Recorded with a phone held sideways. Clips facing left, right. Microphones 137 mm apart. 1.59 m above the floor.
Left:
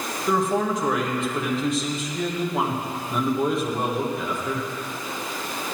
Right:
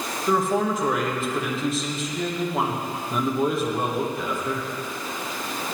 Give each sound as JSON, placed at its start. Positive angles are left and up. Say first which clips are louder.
{"t": 0.3, "sound": "a man speaking", "louder": "even", "side_deg": 0, "distance_m": 1.6}